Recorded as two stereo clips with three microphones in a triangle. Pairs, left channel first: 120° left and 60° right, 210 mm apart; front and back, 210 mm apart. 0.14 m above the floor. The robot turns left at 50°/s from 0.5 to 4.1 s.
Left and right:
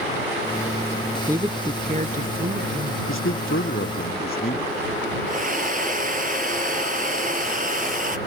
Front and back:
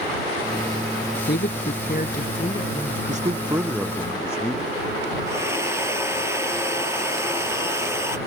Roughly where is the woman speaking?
Ahead.